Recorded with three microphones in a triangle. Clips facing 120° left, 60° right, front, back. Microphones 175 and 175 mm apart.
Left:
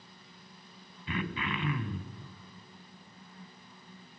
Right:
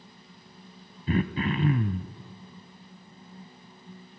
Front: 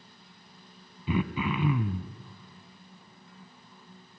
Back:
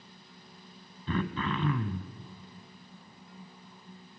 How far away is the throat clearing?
About 1.3 m.